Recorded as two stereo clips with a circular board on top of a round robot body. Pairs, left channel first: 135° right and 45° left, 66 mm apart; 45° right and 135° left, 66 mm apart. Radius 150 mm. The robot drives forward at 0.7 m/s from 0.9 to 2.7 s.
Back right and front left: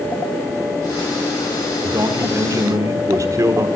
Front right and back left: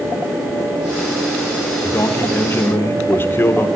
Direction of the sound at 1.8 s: 10° left.